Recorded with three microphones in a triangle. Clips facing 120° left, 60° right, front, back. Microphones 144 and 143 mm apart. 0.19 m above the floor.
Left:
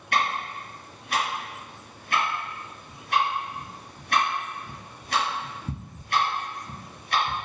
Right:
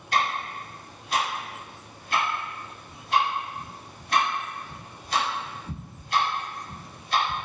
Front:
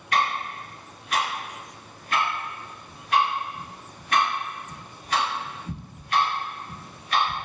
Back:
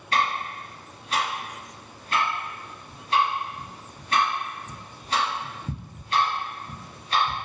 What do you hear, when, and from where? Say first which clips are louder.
0.1 s ticking: even, even; 125° left, 1.3 m